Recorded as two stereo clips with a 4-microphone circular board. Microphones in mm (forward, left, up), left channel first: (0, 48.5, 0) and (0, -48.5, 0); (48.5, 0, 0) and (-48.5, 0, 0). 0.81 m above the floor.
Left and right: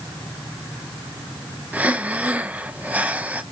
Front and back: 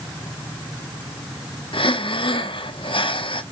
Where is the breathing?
15° right, 0.9 m.